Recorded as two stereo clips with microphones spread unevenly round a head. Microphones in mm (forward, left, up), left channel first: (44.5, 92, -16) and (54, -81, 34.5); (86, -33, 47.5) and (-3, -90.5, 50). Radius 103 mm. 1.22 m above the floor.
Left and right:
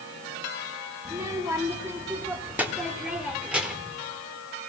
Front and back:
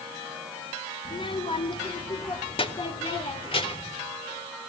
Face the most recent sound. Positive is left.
turn(degrees=0)